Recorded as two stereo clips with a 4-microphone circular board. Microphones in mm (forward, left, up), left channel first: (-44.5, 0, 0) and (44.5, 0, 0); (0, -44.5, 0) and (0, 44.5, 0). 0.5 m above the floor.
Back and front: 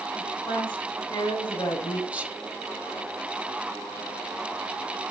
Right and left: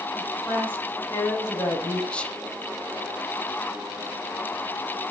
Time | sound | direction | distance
0.1 | a woman speaking | 170° right | 5 m
2.1 | whispering | 45° right | 0.9 m